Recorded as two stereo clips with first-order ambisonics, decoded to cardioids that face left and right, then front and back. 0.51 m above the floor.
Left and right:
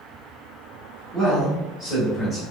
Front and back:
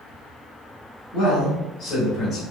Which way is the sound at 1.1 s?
20° left.